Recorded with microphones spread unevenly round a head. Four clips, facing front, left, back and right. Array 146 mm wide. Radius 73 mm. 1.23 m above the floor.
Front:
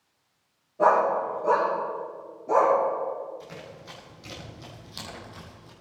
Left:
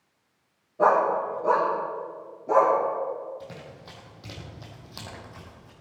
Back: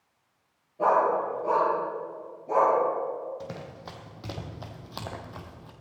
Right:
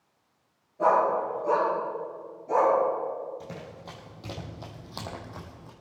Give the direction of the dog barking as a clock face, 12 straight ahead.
10 o'clock.